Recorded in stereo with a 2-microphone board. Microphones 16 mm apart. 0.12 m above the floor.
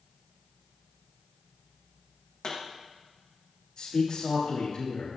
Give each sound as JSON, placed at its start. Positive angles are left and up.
{"t": 2.4, "sound": "a pop", "side_deg": 45, "distance_m": 5.5}
{"t": 3.8, "sound": "a man speaking", "side_deg": 45, "distance_m": 7.0}